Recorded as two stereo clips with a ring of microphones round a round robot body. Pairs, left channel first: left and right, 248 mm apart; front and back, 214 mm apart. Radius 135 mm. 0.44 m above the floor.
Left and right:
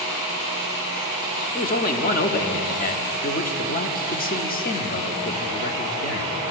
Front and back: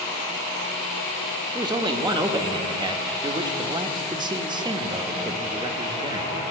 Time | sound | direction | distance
1.6 | a man speaking | 120° left | 0.9 m